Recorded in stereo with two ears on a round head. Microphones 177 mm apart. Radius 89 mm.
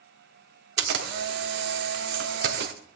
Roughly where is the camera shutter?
Right.